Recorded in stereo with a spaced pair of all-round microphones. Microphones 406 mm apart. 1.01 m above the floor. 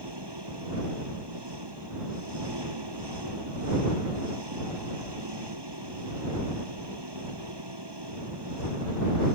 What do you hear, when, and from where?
0.0 s an engine running: 70° right (ahead or behind)